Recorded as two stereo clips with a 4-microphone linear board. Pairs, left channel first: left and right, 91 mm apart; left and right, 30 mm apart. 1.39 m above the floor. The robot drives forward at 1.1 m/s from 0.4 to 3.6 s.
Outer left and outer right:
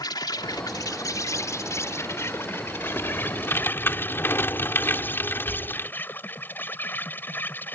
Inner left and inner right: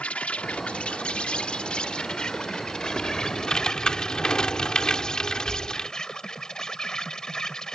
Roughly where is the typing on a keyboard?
Left.